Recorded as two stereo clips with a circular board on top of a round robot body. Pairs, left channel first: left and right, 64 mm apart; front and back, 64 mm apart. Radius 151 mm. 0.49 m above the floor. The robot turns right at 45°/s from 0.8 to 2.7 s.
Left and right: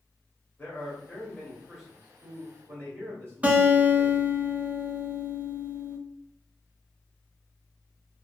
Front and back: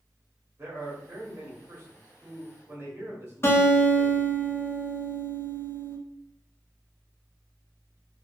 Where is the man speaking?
145° left, 1.1 m; by 4.3 s 130° right, 1.1 m.